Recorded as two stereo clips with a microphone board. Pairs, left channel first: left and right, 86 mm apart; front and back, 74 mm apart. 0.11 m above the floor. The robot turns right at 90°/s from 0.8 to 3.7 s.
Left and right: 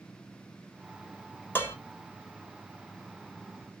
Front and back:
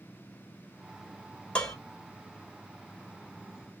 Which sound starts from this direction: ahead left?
Dishes clattering, at 1.6 s.